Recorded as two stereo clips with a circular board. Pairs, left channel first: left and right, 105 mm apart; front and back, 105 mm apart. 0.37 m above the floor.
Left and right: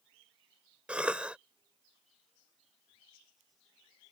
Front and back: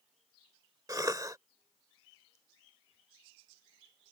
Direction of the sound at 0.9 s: 160° right.